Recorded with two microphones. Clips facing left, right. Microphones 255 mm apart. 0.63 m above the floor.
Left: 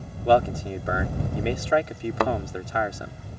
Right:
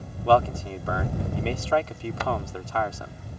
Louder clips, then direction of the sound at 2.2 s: Left 6 dB; 65° left (ahead or behind).